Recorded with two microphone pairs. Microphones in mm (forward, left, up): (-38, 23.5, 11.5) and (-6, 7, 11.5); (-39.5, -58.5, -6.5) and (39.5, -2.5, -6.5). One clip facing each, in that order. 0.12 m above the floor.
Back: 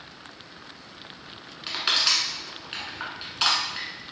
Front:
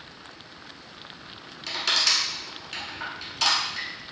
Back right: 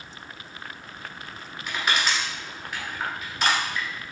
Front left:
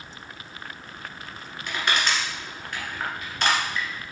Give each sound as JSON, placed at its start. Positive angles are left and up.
{"t": 1.7, "sound": "crushing", "azimuth_deg": 140, "distance_m": 1.2}